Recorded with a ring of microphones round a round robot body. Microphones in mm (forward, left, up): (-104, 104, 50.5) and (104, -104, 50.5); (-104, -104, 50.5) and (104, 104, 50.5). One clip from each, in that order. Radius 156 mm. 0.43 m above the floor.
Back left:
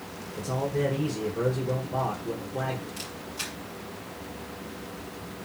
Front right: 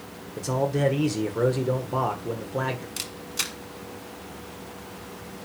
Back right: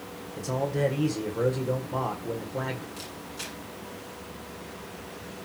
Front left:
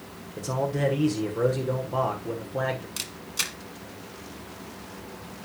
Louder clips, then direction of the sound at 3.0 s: Front right 4 dB, front left 7 dB; 5° left.